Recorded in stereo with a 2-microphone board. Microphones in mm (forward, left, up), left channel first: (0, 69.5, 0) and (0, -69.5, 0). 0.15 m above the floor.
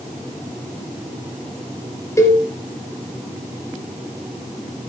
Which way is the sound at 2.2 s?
20° left (ahead or behind).